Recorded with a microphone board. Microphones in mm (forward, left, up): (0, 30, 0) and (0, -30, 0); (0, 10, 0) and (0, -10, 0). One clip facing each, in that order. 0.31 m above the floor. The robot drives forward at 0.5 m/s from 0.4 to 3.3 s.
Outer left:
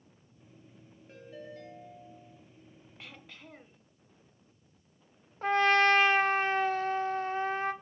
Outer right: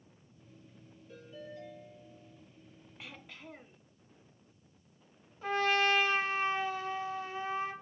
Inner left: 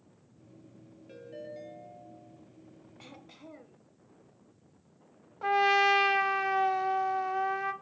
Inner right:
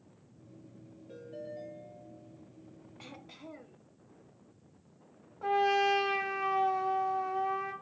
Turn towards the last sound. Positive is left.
turn(degrees=50)  # may be behind; listen again after turning